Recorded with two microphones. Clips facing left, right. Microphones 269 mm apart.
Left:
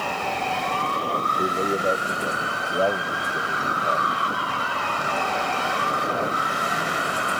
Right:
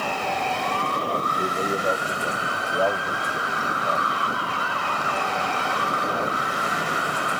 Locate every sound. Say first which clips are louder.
1.4 s a man speaking: left 3 dB; 15° left (ahead or behind)